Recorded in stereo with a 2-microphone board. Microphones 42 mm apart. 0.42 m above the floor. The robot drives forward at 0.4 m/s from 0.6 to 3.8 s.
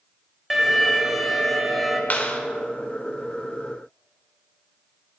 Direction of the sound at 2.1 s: 40° left (ahead or behind).